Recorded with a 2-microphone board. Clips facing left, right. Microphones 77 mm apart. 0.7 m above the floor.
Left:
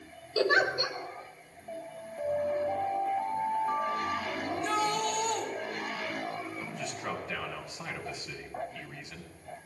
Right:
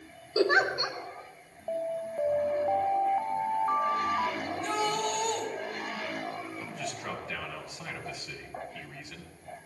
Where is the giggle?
25° right (ahead or behind), 1.7 m.